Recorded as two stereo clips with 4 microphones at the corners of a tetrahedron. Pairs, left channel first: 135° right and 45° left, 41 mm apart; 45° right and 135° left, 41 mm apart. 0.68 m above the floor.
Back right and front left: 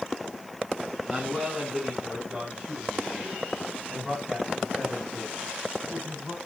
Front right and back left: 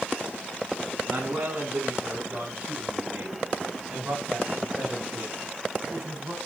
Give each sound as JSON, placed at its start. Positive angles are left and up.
{"t": 1.1, "sound": "a man speaking", "azimuth_deg": 130, "distance_m": 6.0}